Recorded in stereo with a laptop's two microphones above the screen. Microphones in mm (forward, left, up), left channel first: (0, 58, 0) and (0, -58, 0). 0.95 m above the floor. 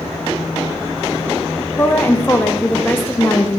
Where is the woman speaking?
20° left (ahead or behind), 0.7 m.